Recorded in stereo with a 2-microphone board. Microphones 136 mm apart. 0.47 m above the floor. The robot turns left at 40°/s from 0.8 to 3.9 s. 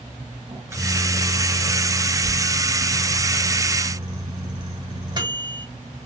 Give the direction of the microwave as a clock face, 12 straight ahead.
1 o'clock.